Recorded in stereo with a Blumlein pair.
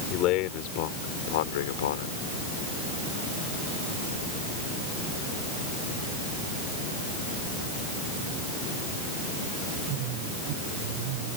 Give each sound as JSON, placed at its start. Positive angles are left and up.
{"t": 0.1, "sound": "a man speaking", "azimuth_deg": 35}